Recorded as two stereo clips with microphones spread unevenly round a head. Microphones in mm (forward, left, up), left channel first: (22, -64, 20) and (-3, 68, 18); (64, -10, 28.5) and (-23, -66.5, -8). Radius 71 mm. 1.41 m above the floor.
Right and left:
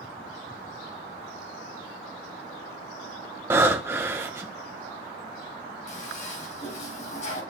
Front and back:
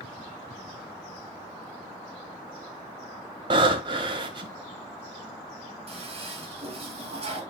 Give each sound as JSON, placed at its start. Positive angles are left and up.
{"t": 3.5, "sound": "breathing", "azimuth_deg": 160, "distance_m": 1.3}
{"t": 5.9, "sound": "a toilet flushing", "azimuth_deg": -120, "distance_m": 4.0}